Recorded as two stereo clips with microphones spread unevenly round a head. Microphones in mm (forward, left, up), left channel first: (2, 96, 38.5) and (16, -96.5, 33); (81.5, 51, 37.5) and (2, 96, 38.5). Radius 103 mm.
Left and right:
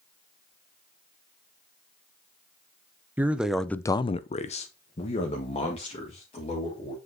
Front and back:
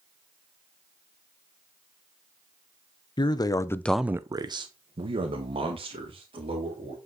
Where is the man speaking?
5° right, 1.1 m; by 7.0 s 155° left, 3.5 m.